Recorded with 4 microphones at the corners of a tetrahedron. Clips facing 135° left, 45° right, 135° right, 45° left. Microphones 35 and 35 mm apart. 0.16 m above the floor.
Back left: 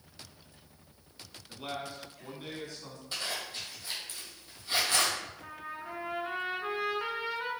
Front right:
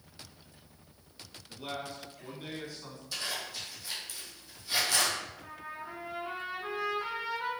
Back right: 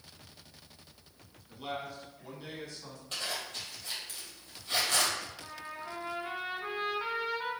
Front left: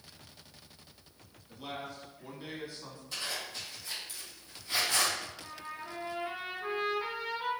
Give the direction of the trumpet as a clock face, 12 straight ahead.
6 o'clock.